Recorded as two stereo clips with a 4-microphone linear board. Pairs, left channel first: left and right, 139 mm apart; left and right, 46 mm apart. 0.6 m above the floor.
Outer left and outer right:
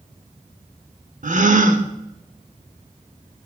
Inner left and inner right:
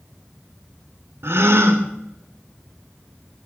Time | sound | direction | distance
1.2 | a gasp | 60° right (ahead or behind) | 0.9 m